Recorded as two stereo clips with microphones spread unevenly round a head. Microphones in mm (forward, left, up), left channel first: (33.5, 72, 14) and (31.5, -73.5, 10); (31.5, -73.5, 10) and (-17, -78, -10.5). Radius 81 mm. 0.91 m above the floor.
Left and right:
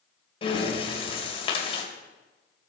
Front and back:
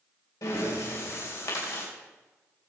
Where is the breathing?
35° left, 3 m.